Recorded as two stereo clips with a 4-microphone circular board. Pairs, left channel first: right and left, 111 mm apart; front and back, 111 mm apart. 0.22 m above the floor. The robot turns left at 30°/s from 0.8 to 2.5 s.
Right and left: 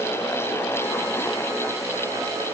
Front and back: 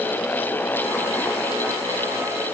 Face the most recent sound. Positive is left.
No sound to turn to.